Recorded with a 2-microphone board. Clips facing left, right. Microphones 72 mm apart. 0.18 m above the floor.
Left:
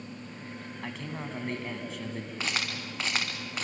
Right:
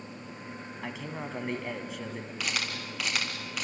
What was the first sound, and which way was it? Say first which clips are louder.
A man speaking: right 1 dB; 5° right (ahead or behind).